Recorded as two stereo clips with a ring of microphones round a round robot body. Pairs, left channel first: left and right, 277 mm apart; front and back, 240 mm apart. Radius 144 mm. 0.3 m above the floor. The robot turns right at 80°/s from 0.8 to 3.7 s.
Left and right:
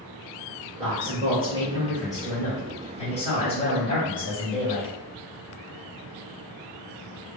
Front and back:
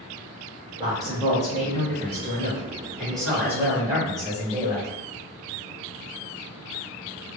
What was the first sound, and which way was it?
A man speaking, 105° right.